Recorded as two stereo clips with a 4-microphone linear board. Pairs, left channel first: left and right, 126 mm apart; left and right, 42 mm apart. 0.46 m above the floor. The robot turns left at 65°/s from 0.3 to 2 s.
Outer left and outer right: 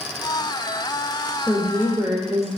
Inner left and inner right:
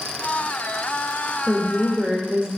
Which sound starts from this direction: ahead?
A woman speaking, at 1.5 s.